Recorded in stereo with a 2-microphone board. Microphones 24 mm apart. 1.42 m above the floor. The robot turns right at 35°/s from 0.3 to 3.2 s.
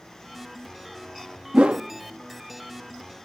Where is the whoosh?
55° right (ahead or behind), 0.5 m; by 1.9 s 50° right (ahead or behind), 0.5 m.